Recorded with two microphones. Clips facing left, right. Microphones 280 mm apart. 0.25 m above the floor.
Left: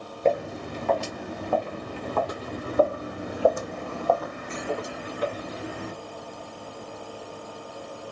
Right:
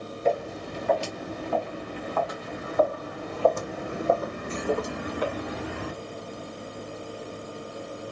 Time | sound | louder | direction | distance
0.2 | footsteps | left 2 dB | 60° left (ahead or behind) | 2 m